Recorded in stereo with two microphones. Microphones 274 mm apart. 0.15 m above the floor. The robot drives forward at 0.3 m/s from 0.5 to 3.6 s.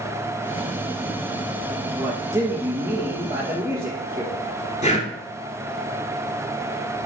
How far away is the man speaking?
About 2.5 m.